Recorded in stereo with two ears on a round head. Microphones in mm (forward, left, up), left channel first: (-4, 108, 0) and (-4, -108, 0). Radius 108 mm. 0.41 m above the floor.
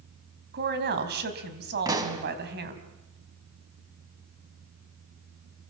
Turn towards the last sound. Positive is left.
turn(degrees=-15)  # may be behind; listen again after turning